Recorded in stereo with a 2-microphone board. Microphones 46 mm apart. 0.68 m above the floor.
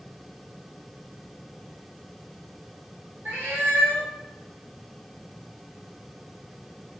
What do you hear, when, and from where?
3.2 s a cat meowing: 50° right (ahead or behind), 2.0 m